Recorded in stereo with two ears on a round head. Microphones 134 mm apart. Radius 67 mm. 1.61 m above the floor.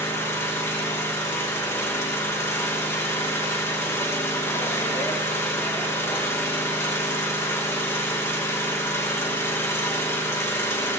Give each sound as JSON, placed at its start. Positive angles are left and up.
{"t": 0.0, "sound": "an engine running", "side_deg": 20, "distance_m": 1.1}